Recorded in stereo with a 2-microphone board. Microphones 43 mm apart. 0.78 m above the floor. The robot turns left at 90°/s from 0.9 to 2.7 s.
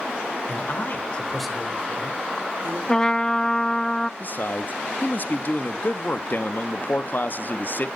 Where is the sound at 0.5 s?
50° left, 2.5 m; by 2.8 s 110° right, 2.5 m.